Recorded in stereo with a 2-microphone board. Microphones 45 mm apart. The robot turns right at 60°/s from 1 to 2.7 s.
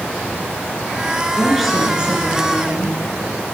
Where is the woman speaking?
165° left, 3 m; by 3.0 s 115° right, 3 m.